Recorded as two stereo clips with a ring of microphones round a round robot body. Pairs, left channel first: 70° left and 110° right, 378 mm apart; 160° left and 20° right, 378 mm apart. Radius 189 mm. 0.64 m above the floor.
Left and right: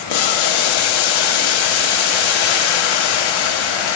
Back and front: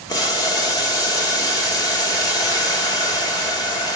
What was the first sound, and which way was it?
Boiling, 80° left.